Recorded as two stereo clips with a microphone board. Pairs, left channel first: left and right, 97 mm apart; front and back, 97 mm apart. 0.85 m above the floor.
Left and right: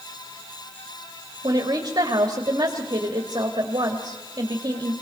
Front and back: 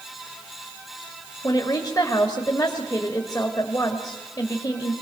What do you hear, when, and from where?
1.4 s a woman speaking: 45° right, 1.7 m